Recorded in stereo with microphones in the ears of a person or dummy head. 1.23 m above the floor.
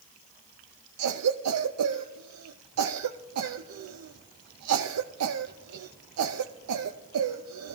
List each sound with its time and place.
1.0 s a cough: 85° right, 0.7 m